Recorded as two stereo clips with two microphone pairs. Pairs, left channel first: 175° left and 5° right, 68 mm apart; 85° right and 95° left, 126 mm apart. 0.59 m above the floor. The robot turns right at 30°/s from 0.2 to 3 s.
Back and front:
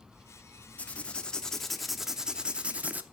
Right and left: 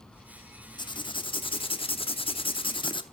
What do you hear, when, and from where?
0.8 s writing: 120° right, 0.7 m; by 3.0 s 55° right, 0.7 m